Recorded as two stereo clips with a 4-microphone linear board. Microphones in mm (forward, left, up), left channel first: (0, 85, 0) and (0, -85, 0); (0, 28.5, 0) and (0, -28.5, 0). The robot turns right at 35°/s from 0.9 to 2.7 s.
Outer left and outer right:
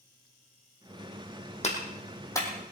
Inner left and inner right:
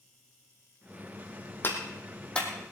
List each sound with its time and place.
1.6 s a clap: 40° left (ahead or behind), 3 m; by 2.5 s 10° left (ahead or behind), 3 m